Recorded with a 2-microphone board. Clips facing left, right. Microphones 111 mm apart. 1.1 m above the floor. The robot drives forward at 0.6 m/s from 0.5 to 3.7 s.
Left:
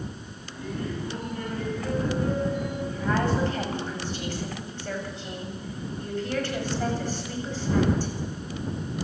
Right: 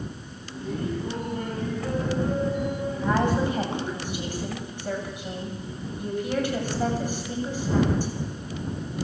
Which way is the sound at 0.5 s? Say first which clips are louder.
Right 3 dB; 30° right (ahead or behind).